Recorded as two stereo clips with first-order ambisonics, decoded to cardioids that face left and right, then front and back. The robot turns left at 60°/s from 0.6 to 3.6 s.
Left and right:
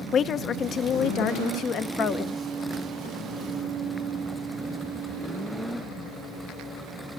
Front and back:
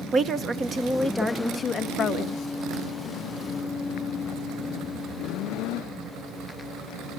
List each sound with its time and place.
0.1 s a woman speaking: 130° left, 0.7 m; by 2.4 s 25° left, 0.7 m